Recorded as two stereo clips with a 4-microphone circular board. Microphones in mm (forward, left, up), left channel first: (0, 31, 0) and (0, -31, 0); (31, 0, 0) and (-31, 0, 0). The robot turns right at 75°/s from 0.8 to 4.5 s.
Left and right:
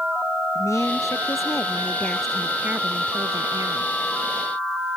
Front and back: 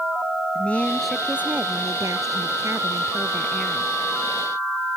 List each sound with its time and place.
0.6 s a woman speaking: 70° left; by 3.9 s 55° right